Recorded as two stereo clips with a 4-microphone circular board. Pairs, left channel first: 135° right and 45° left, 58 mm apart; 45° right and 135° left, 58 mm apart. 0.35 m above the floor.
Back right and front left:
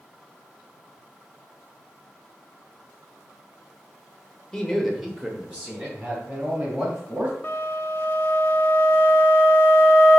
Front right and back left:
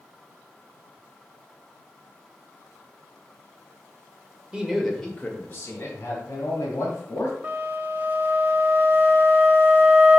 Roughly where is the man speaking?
Behind.